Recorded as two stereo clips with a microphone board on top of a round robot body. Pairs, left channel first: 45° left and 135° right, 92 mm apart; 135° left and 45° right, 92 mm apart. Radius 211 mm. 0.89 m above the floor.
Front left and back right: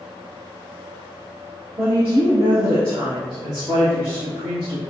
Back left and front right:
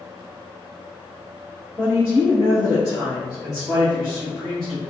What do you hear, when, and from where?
1.8 s a woman speaking: 110° right, 1.4 m; by 4.8 s 140° right, 3 m